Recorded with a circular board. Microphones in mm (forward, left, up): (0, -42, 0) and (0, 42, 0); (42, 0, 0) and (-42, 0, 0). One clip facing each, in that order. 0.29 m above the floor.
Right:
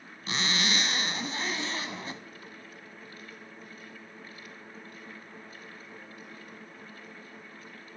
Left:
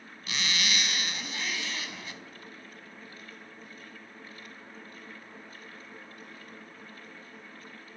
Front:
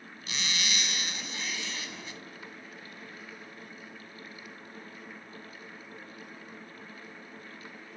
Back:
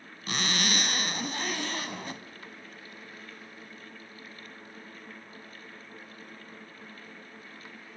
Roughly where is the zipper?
Behind right.